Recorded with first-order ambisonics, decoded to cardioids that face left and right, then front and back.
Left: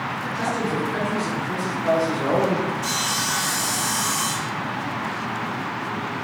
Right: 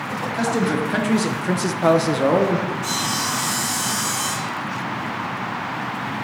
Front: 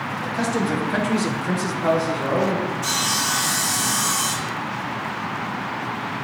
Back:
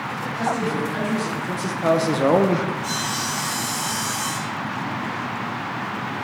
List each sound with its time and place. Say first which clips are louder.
0.2 s a man speaking: right 5 dB, even; 50° right, 1.9 m; by 2.7 s 175° left, 0.8 m
2.8 s sawing: right 1 dB, front 3 dB; 15° left, 1.6 m